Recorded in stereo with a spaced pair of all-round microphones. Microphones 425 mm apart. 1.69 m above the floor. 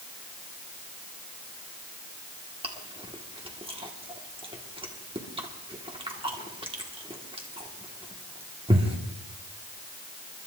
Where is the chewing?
10° right (ahead or behind), 1.5 m.